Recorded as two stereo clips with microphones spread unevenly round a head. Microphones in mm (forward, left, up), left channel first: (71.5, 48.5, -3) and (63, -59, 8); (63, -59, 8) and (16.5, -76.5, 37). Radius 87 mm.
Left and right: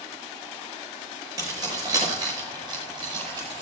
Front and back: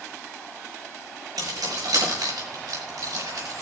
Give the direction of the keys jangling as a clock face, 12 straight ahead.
6 o'clock.